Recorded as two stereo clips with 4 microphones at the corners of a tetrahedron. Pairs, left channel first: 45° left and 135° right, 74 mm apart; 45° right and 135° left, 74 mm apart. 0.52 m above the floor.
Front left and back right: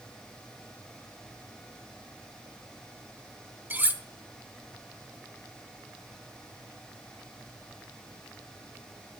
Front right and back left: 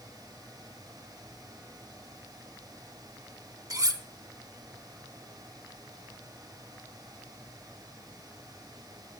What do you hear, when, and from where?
3.7 s cutlery clinking: 165° left, 0.8 m